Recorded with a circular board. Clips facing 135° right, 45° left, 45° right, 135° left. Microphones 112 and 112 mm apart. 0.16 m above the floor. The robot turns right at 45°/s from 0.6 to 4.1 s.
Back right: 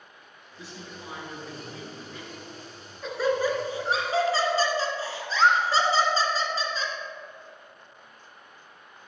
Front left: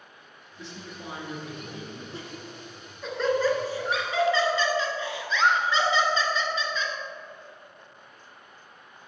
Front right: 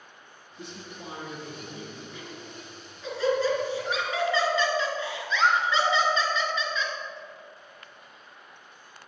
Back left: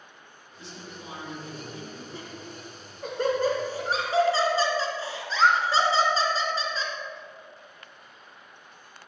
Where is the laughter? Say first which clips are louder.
Front left 2 dB, back left 1 dB; 95° left, 1.9 m; by 6.9 s straight behind, 1.9 m.